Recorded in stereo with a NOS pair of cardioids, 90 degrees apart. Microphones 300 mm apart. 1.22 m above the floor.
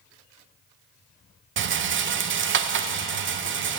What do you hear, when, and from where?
1.6 s a rattle: 40° right, 0.9 m